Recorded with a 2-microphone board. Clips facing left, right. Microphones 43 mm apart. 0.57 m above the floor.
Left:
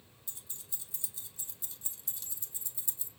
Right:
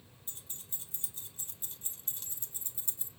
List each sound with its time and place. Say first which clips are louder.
0.3 s keys jangling: right 1 dB; 45° right (ahead or behind), 0.8 m